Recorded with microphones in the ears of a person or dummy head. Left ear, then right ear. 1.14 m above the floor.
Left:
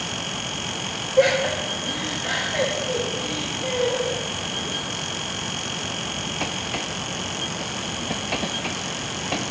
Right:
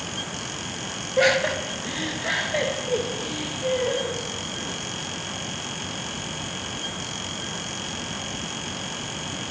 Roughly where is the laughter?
Right.